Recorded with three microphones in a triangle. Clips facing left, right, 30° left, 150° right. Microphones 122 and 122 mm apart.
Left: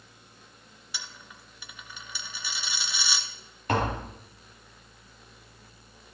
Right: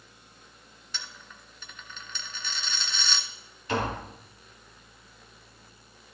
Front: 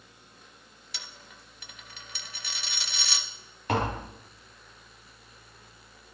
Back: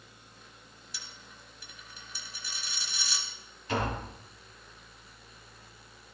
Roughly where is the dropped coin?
Ahead.